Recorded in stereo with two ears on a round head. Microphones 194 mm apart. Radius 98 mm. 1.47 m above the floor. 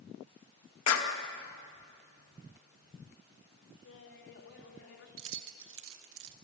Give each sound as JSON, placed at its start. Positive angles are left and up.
{"t": 0.9, "sound": "a clap", "side_deg": 80, "distance_m": 2.0}
{"t": 3.8, "sound": "laughter", "side_deg": 60, "distance_m": 3.0}
{"t": 5.2, "sound": "keys jangling", "side_deg": -65, "distance_m": 1.4}